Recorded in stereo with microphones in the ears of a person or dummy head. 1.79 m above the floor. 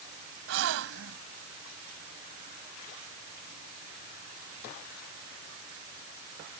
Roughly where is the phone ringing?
No phone ringing in this recording.